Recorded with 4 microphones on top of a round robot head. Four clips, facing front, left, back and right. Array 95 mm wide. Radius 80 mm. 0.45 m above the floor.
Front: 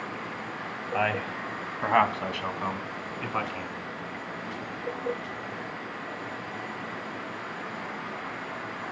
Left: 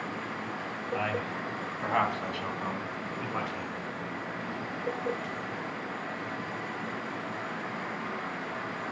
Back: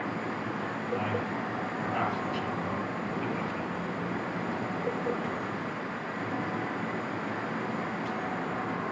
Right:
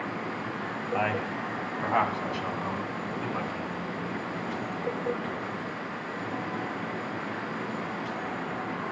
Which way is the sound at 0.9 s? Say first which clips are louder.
Right 3 dB, front 5 dB; 30° right.